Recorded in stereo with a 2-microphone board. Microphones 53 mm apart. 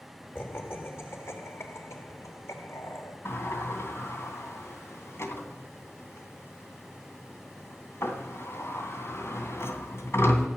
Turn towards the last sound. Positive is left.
turn(degrees=55)  # may be behind; listen again after turning